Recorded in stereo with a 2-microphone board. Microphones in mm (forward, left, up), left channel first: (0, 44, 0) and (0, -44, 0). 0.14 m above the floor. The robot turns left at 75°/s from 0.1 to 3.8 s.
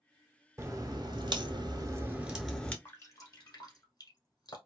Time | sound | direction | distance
0.6 | a crack | 40° right | 0.7 m
2.9 | dripping | 25° left (ahead or behind) | 0.9 m